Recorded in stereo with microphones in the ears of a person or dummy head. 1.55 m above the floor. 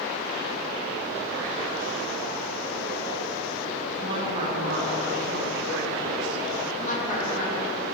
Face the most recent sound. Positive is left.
turn(degrees=40)  # may be behind; listen again after turning